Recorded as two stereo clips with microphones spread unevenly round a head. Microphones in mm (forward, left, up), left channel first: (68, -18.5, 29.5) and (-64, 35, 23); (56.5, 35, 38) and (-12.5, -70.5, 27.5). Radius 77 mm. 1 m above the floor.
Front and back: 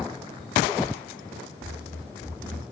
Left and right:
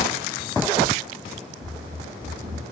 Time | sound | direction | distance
1.6 | running footsteps | 150° right | 1.8 m